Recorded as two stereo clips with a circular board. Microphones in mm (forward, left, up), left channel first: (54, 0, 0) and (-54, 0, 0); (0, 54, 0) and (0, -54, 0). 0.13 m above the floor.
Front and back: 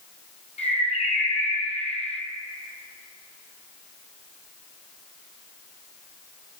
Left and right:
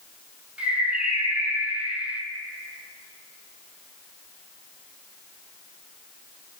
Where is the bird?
10° right, 1.0 m.